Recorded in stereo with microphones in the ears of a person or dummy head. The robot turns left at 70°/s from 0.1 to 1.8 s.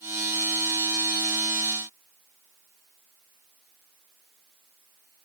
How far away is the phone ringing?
No phone ringing in this recording.